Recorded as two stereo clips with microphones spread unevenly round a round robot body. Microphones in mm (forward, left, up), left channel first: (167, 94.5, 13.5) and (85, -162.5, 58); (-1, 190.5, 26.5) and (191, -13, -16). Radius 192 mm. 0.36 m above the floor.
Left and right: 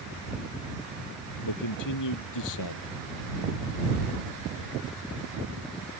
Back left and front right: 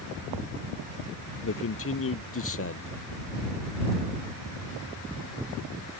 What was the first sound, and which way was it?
A man speaking, 95° left.